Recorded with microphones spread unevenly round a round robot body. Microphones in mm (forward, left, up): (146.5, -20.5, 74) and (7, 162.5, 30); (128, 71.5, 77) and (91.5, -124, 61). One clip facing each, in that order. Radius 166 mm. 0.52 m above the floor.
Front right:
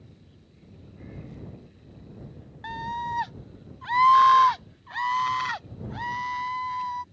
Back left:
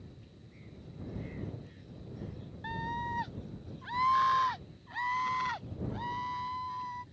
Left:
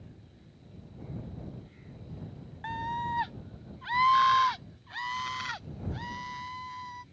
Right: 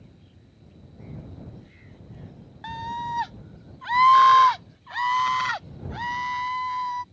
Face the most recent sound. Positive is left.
turn(degrees=-95)